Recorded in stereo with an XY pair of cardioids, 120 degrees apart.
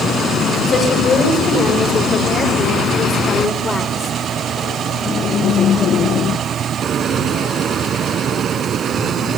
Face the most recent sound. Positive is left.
turn(degrees=25)